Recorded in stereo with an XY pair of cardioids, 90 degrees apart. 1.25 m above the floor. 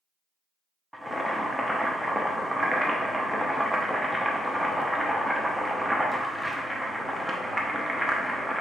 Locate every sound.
0.9 s boiling: straight ahead, 0.7 m